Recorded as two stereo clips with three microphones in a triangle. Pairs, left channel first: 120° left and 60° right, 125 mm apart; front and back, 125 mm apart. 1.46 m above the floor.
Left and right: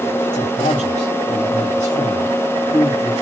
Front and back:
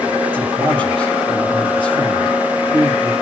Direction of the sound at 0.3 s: 135° left.